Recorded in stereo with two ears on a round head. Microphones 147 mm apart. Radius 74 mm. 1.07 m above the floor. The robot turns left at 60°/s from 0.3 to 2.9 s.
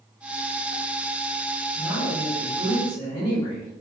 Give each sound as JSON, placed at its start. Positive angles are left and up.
{"t": 1.8, "sound": "a woman speaking", "azimuth_deg": 85, "distance_m": 1.6}